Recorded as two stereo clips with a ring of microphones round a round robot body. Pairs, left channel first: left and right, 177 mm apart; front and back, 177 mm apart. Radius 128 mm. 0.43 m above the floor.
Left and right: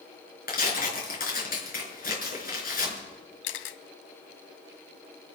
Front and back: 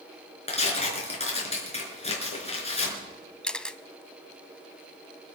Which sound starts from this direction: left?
A camera shutter, at 3.4 s.